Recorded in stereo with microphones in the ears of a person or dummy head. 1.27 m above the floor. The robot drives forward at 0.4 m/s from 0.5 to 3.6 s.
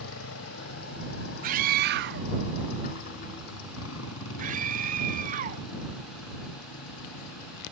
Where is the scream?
40° right (ahead or behind).